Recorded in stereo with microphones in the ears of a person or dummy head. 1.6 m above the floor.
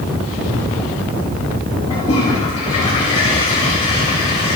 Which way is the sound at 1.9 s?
35° left (ahead or behind).